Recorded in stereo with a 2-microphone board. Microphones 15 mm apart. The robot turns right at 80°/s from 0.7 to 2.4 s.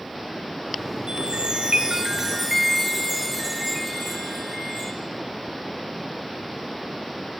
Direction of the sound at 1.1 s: 120° right.